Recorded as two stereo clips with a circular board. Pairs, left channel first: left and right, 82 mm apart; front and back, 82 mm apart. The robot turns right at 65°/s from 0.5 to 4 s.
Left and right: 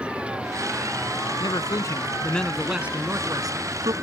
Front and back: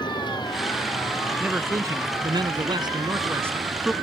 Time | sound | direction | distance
0.0 | a vehicle | 15° right | ?
1.4 | a man speaking | 105° left | ?